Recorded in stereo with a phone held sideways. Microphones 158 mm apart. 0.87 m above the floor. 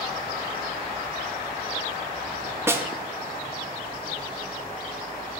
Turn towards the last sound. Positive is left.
turn(degrees=-15)  # may be behind; listen again after turning